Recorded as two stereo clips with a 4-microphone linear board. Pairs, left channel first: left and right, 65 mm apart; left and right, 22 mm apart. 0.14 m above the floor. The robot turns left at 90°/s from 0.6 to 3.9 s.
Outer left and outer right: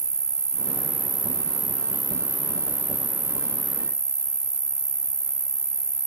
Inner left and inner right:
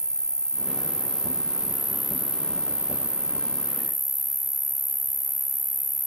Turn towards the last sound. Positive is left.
turn(degrees=10)